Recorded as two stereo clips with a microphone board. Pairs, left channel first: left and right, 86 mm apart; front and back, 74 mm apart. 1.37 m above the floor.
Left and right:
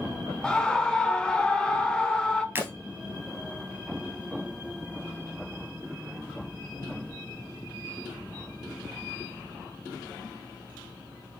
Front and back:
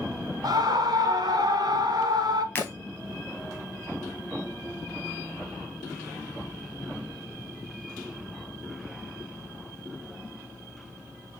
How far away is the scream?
About 0.9 m.